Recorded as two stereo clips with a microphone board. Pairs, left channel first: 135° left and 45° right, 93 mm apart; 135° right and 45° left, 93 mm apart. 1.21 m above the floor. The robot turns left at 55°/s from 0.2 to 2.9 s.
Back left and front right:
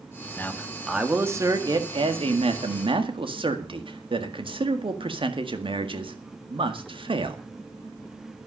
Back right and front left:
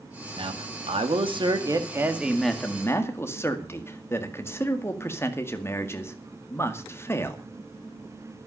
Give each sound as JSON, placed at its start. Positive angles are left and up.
{"t": 0.4, "sound": "a man speaking", "azimuth_deg": 70, "distance_m": 1.9}